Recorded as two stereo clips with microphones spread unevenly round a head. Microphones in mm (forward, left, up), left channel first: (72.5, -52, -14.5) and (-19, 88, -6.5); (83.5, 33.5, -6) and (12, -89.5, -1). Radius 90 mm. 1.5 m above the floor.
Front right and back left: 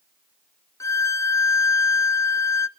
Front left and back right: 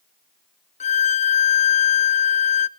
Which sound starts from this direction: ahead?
A violin, at 0.8 s.